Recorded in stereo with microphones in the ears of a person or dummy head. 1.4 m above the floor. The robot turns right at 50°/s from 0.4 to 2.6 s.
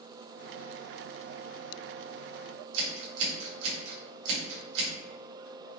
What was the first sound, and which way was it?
Scissors, 70° right (ahead or behind).